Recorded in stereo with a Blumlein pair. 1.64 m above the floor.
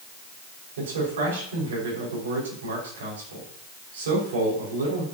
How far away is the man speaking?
About 6 m.